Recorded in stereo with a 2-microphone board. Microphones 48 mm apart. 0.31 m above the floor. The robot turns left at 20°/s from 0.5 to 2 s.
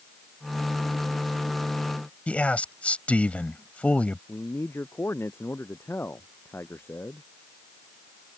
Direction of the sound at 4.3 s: 55° left (ahead or behind).